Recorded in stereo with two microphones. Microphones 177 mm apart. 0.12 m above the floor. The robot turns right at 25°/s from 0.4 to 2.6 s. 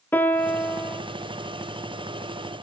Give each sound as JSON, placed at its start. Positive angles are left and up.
{"t": 0.1, "sound": "a piano", "side_deg": 10, "distance_m": 0.6}